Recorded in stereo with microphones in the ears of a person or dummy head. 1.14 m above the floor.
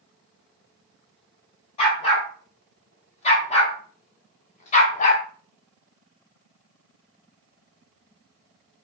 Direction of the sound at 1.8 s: 40° left (ahead or behind).